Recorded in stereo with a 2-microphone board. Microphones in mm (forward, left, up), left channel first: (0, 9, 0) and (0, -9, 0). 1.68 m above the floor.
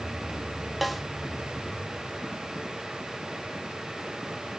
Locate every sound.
0.8 s a snare drum: 5° right (ahead or behind), 1.7 m